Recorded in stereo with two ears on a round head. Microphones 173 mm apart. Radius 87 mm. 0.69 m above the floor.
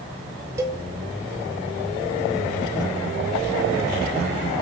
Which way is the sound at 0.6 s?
15° right (ahead or behind).